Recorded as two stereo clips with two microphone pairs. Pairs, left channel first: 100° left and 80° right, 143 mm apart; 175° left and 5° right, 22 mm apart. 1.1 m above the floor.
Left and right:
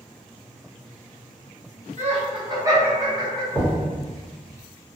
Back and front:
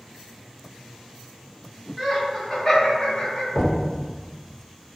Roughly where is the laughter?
Right.